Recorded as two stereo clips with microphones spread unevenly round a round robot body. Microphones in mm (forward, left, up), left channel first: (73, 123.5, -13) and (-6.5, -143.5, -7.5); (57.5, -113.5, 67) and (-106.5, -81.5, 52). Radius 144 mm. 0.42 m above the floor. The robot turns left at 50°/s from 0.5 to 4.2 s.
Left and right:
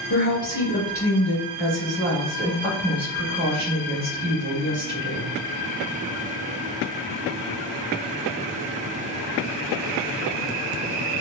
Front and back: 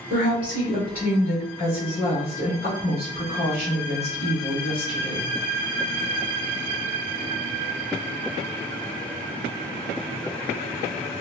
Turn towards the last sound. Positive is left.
turn(degrees=-70)